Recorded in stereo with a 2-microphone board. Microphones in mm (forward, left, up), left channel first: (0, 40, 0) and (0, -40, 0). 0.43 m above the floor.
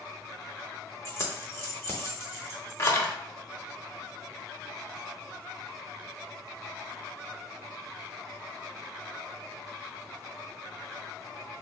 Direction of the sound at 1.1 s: 35° left (ahead or behind).